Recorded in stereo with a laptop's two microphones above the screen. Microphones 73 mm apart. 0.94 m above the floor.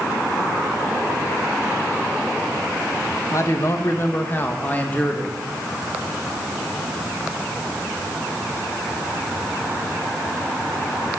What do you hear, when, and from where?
3.3 s a man speaking: 45° left (ahead or behind), 1.0 m; by 5.3 s 15° left (ahead or behind), 1.6 m